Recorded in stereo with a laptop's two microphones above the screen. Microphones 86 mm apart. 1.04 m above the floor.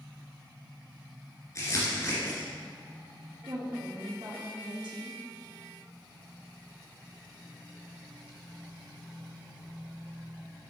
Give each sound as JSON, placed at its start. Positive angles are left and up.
{"t": 1.6, "sound": "crumpling", "side_deg": 40, "distance_m": 2.5}
{"t": 3.5, "sound": "a woman speaking", "side_deg": -70, "distance_m": 1.4}